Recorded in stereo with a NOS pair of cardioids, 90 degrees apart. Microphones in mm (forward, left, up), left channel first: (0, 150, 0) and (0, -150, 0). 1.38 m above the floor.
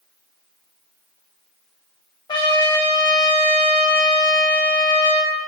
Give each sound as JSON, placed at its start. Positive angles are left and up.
{"t": 2.3, "sound": "a trumpet", "azimuth_deg": 15, "distance_m": 0.5}